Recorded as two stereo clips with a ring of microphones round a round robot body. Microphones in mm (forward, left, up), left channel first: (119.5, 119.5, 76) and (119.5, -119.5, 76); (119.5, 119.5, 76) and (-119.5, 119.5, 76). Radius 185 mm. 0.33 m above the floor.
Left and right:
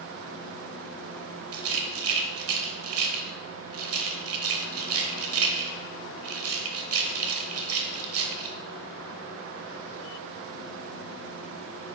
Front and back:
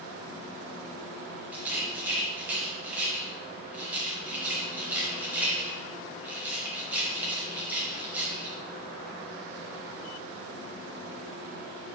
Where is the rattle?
95° right, 0.9 m.